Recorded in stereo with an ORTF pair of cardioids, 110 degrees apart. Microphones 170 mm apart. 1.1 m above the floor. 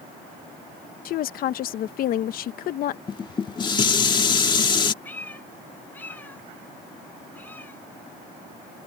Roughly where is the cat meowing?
Ahead.